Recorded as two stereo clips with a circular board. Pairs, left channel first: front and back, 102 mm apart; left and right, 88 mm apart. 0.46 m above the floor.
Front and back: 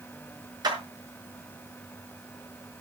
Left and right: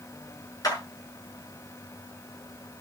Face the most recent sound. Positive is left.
turn(degrees=135)